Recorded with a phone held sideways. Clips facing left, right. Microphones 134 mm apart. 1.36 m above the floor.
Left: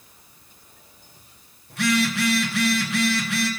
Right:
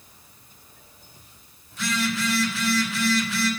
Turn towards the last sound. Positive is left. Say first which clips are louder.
# left 5 dB
turn(degrees=70)  # may be behind; listen again after turning